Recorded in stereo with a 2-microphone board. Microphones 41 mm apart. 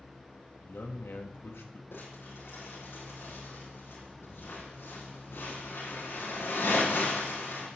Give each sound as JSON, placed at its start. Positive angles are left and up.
{"t": 0.6, "sound": "a man speaking", "side_deg": 80, "distance_m": 1.9}
{"t": 1.9, "sound": "crumpling", "side_deg": 80, "distance_m": 8.5}